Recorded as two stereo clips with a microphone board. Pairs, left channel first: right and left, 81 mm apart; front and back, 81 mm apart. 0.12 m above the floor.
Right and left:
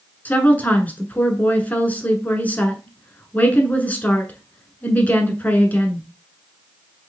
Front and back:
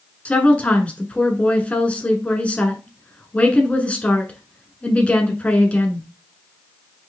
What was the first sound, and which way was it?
A woman speaking, 50° right.